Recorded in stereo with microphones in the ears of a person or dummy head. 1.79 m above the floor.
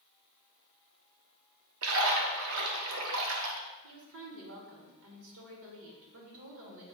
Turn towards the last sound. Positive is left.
turn(degrees=-70)  # may be behind; listen again after turning